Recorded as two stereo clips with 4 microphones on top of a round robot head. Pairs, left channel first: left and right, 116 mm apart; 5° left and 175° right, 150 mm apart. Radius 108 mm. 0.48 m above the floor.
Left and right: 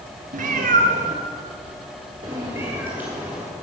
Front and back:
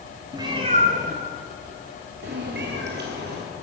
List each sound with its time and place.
0.3 s a cat meowing: 105° right, 1.2 m; by 3.4 s 175° right, 2 m